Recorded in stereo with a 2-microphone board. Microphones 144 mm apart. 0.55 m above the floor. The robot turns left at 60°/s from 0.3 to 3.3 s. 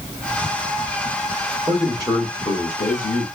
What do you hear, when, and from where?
1.7 s a man speaking: straight behind, 1.9 m; by 3.3 s 85° left, 1.9 m